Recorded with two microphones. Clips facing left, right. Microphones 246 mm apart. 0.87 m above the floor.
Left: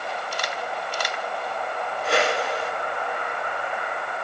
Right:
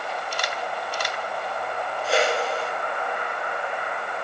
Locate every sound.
2.0 s a whoosh: 70° left (ahead or behind), 1.7 m